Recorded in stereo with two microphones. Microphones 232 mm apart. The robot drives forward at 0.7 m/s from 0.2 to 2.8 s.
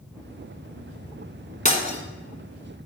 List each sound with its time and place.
1.6 s breaking glass: 35° left (ahead or behind), 1.2 m; by 2.0 s 30° left (ahead or behind), 1.4 m